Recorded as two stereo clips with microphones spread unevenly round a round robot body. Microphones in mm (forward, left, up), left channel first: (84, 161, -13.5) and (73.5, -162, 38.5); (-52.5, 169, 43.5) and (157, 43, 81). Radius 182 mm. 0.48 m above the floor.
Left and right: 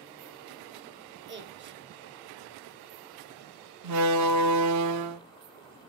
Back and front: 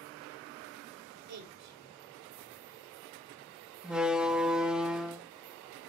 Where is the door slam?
125° right, 0.6 m.